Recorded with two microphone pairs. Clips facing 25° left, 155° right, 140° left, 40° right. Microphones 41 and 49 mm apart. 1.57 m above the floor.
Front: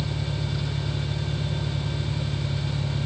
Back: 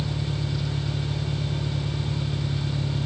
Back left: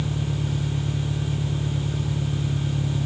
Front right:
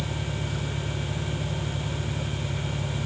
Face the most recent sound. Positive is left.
turn(degrees=145)